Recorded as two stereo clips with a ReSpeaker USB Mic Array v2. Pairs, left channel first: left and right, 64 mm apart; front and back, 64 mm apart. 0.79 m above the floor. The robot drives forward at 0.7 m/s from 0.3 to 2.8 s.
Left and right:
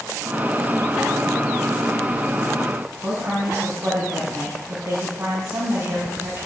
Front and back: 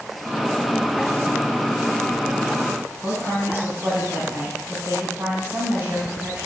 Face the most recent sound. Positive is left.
turn(degrees=-130)